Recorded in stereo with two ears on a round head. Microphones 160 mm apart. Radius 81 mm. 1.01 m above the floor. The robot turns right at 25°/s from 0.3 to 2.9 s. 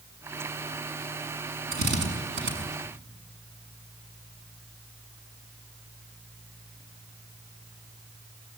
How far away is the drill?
About 7 m.